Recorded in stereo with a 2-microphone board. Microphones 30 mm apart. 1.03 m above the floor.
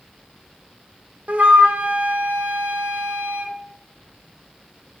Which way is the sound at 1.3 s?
50° right (ahead or behind).